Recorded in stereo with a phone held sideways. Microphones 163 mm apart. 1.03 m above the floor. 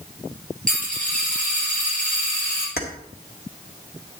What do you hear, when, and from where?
0.7 s a dropped coin: 5° left (ahead or behind), 6 m
2.8 s keys jangling: 75° left (ahead or behind), 1.5 m